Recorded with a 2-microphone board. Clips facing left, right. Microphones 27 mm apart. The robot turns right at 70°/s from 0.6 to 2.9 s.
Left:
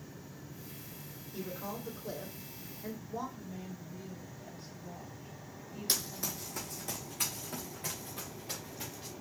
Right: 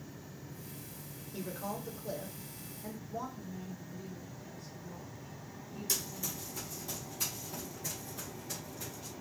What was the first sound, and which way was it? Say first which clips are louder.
A woman speaking: right 1 dB; 20° right.